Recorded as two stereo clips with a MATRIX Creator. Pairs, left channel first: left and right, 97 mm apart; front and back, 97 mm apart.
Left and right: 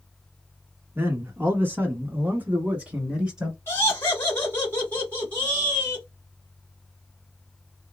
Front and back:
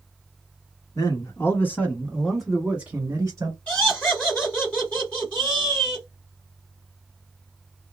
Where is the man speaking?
35° right, 1.6 m; by 3.6 s 170° right, 1.3 m.